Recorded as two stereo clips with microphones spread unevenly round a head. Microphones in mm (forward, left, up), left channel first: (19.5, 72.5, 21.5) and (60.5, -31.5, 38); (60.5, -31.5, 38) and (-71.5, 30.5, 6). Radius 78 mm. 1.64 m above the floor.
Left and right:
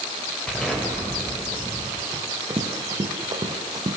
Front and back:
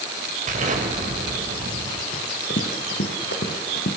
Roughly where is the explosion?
Behind.